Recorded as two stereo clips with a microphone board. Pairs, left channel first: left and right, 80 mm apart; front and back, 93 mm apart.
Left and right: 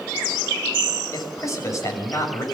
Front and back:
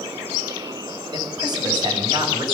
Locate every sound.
1.1 s a man speaking: 140° left, 6 m